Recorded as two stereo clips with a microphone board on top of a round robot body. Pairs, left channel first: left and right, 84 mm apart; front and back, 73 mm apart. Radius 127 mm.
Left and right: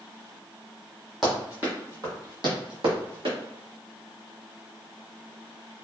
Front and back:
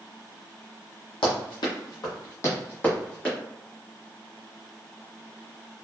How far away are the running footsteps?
About 1.0 m.